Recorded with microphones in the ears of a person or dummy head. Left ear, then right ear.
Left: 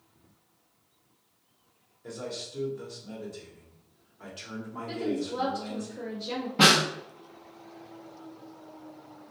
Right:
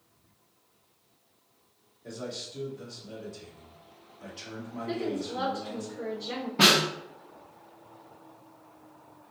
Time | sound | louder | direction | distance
2.0 | a man speaking | left 1 dB | 45° left (ahead or behind) | 1.1 m
4.9 | a woman speaking | left 1 dB | 10° right (ahead or behind) | 0.9 m
6.6 | a snare drum | left 1 dB | 5° left (ahead or behind) | 0.5 m